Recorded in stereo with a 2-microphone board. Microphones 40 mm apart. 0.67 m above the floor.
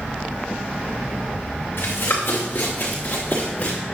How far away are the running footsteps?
About 3.5 m.